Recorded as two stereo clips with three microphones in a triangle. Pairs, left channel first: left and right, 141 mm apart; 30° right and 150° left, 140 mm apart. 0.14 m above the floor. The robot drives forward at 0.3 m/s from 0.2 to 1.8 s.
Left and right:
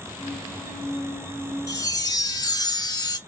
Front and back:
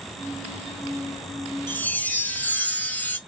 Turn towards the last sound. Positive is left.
turn(degrees=40)